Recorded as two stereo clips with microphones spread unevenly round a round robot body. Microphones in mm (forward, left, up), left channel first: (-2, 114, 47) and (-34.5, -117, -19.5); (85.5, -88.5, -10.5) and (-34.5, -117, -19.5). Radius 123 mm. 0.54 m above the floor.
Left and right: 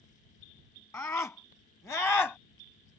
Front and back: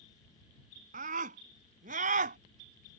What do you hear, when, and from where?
0.9 s a scream: 160° left; by 2.4 s 165° left